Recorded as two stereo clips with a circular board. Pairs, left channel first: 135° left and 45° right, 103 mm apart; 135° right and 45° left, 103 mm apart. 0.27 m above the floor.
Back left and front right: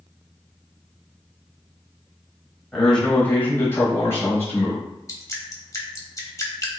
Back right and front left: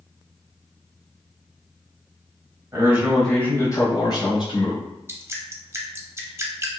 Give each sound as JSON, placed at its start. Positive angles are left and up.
{"t": 2.7, "sound": "a man speaking", "azimuth_deg": 50, "distance_m": 1.0}
{"t": 5.1, "sound": "dripping", "azimuth_deg": 95, "distance_m": 0.9}